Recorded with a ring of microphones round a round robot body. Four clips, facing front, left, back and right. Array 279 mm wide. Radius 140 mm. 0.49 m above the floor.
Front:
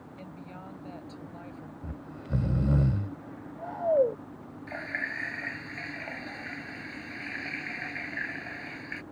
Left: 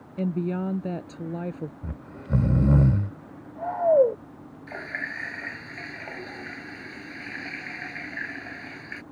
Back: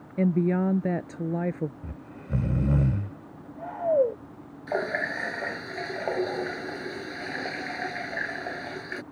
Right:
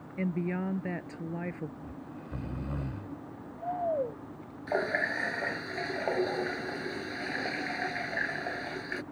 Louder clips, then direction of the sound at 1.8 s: Left 4 dB, even; 100° left.